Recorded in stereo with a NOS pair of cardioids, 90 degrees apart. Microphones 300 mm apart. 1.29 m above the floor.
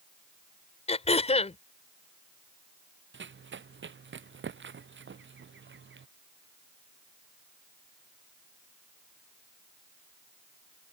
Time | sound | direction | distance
0.9 | throat clearing | 20° left | ?
3.1 | running footsteps | 40° right | ?